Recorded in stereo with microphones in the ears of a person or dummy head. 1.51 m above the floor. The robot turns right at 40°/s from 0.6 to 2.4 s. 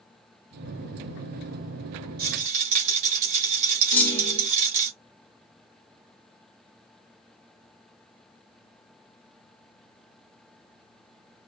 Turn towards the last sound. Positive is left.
turn(degrees=10)  # may be behind; listen again after turning